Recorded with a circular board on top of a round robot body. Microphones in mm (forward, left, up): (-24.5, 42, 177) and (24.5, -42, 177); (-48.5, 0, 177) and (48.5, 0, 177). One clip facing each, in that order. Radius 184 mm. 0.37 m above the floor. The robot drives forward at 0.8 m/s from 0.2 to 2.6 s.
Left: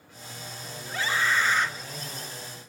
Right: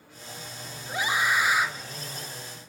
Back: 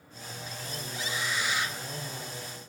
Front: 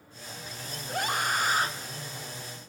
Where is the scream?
10° left, 1.6 m; by 1.7 s 20° left, 1.1 m.